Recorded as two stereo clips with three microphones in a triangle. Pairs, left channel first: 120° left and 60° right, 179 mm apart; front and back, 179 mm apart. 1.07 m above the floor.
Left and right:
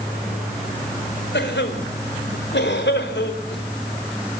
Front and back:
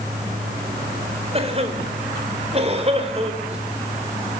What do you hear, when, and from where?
1.3 s a cough: 125° left, 4 m